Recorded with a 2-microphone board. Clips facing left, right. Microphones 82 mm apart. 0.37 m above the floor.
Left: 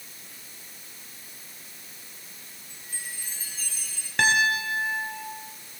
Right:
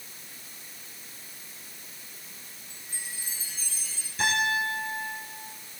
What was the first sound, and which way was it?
A chime, 50° left (ahead or behind).